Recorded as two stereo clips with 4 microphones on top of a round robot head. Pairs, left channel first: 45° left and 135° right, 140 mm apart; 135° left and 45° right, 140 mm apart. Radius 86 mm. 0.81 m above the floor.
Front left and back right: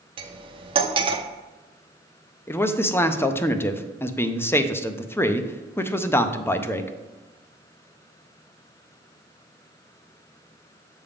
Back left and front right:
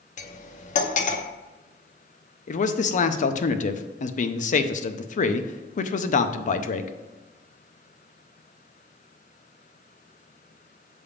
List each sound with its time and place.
0.2 s cutlery clinking: 170° left, 0.7 m
2.5 s a man speaking: 115° left, 0.6 m